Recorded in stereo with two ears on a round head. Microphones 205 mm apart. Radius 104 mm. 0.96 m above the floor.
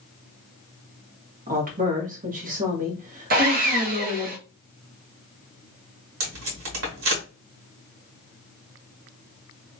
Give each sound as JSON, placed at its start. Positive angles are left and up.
{"t": 1.5, "sound": "a woman speaking", "side_deg": -40, "distance_m": 1.4}
{"t": 3.3, "sound": "sawing", "side_deg": -40, "distance_m": 1.0}
{"t": 6.2, "sound": "tape being pulled", "side_deg": -65, "distance_m": 1.6}